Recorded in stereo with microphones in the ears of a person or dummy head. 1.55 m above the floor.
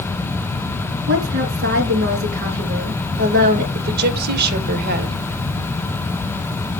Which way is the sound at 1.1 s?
50° right (ahead or behind).